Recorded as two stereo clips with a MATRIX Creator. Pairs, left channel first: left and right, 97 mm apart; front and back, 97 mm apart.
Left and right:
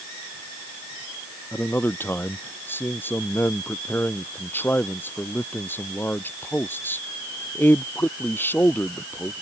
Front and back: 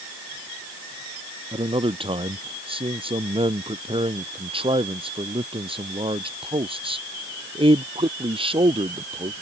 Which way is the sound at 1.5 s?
160° left.